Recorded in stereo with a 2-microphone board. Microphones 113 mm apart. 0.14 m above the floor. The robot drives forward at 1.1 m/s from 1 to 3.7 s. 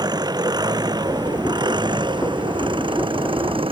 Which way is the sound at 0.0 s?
35° right (ahead or behind).